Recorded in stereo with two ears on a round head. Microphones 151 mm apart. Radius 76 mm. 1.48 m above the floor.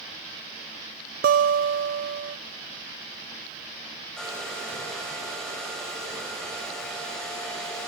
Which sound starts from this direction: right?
A guitar, at 1.2 s.